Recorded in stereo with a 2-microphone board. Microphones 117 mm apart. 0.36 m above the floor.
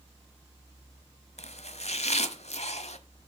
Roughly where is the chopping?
Left.